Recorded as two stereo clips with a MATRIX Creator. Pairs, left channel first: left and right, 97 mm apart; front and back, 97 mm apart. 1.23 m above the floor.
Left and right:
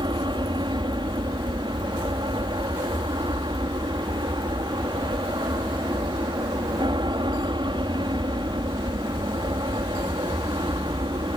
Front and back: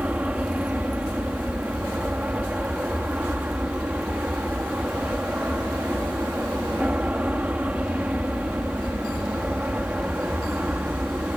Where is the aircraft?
105° right.